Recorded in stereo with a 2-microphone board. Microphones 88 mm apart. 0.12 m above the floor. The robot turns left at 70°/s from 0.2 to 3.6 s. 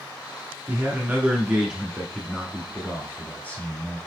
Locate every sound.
0.7 s a man speaking: 15° right (ahead or behind), 1.1 m; by 4.0 s 20° left (ahead or behind), 1.1 m